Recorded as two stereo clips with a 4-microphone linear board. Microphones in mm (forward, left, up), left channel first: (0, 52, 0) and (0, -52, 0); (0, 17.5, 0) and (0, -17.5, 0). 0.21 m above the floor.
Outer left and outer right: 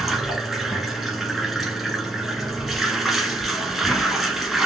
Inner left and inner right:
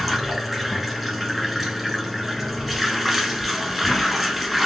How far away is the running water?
About 0.9 m.